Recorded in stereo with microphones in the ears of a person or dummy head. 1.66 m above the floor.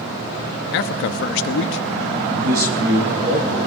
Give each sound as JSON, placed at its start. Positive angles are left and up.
{"t": 0.7, "sound": "a man speaking", "side_deg": 60, "distance_m": 0.8}
{"t": 2.3, "sound": "a man speaking", "side_deg": -55, "distance_m": 3.5}